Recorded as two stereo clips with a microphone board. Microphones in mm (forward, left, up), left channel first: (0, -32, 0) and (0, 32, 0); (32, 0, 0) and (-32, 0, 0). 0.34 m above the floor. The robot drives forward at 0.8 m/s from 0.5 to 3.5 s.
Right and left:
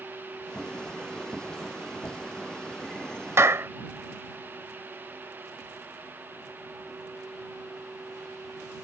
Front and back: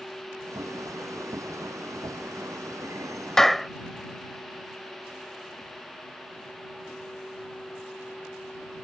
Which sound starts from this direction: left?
A clap, at 3.4 s.